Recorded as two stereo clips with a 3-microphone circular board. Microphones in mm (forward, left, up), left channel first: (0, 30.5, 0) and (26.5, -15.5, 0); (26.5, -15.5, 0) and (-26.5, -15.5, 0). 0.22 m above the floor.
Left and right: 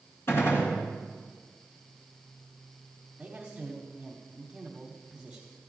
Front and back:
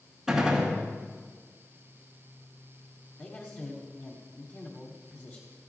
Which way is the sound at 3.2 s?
5° left.